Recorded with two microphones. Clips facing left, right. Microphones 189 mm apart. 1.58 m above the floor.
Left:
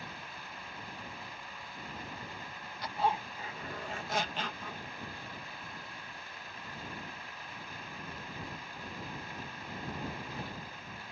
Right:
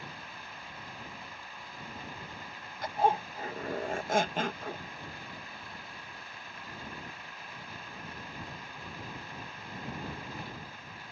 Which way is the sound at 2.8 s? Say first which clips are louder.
Right 4 dB; 50° right (ahead or behind).